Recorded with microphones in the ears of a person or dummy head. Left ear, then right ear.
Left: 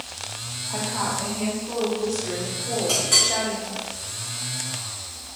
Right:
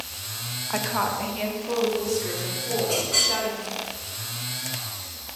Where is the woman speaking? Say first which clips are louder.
Right 2 dB; 65° right (ahead or behind), 0.5 m; by 3.9 s 80° right, 2.5 m.